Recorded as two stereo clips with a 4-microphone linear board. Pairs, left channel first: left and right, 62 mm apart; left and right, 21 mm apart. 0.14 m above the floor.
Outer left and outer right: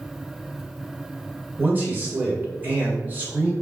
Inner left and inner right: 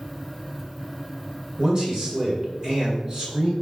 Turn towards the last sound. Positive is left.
turn(degrees=-30)  # may be behind; listen again after turning